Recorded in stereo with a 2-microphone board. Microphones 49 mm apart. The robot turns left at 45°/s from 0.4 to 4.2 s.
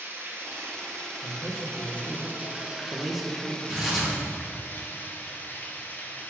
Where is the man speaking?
55° left (ahead or behind), 1.1 m; by 3.6 s 25° right (ahead or behind), 1.1 m.